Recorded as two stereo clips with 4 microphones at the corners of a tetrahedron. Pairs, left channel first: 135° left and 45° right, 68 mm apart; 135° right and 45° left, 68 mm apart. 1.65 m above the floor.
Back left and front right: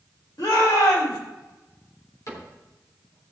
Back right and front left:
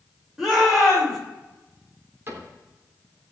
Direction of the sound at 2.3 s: 100° left.